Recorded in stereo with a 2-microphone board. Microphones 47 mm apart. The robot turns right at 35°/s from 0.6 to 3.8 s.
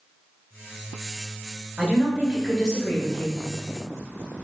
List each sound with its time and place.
1.8 s a woman speaking: 25° right, 1.7 m; by 3.4 s 35° left, 1.7 m